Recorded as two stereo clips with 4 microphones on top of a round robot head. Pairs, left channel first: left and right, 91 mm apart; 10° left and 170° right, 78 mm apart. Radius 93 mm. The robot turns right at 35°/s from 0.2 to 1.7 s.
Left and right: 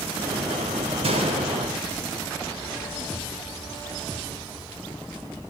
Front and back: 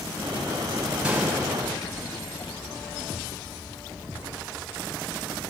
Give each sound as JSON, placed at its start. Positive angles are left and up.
{"t": 1.0, "sound": "a gunshot", "azimuth_deg": -90, "distance_m": 3.0}